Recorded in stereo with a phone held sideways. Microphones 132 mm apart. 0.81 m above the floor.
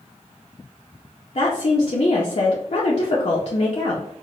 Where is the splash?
I don't hear a splash.